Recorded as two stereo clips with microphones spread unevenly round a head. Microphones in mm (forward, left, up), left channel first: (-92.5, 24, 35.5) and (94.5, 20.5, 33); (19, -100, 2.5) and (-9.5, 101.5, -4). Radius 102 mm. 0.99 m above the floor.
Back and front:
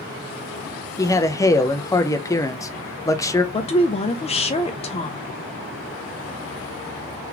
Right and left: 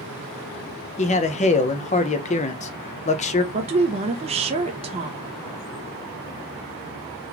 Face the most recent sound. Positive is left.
turn(degrees=140)